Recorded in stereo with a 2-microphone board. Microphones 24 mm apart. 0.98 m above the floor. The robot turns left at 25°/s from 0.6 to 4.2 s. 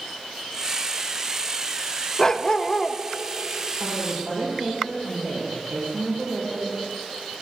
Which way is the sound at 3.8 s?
85° right.